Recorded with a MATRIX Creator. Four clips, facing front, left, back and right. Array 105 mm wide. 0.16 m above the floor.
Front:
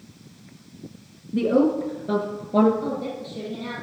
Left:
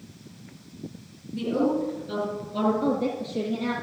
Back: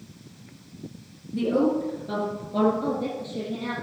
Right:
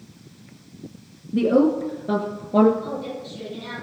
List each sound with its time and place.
1.3 s a woman speaking: 70° right, 5.5 m; by 2.7 s 65° right, 4 m
2.8 s a woman speaking: 100° left, 3.5 m